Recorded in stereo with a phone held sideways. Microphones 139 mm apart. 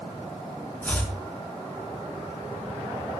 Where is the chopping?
10° left (ahead or behind), 4 m.